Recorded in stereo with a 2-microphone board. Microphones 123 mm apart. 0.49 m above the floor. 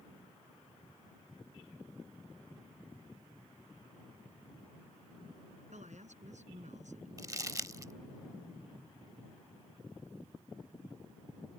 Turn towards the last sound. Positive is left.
turn(degrees=-30)  # may be behind; listen again after turning